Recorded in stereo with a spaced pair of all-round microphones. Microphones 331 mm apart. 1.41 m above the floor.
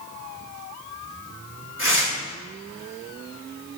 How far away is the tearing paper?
About 7 m.